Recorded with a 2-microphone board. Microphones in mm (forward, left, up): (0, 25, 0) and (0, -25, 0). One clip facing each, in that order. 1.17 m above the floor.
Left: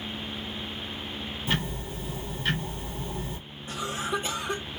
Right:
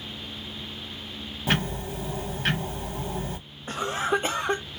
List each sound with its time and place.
1.5 s ticking: 75° right (ahead or behind), 1.1 m
3.7 s a cough: 45° right (ahead or behind), 0.6 m